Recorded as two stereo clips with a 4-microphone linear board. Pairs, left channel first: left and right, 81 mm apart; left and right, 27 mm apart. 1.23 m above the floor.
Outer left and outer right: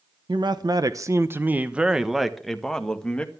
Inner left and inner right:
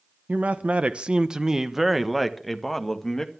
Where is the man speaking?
70° right (ahead or behind), 0.9 m; by 3.3 s 10° left (ahead or behind), 1.8 m.